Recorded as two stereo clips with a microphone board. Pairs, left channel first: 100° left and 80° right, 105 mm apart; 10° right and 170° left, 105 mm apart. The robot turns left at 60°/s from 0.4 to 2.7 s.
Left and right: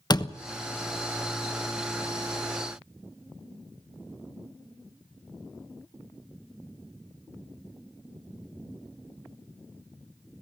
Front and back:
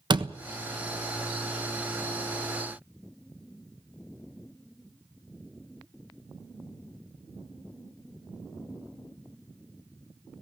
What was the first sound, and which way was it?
A door slam, 140° left.